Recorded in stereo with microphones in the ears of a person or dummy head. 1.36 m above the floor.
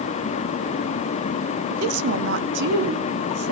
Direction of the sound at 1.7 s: 70° right (ahead or behind).